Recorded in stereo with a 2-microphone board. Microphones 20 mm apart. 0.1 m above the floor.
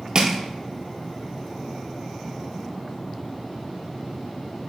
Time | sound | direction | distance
0.1 | crushing | 45° right (ahead or behind) | 0.7 m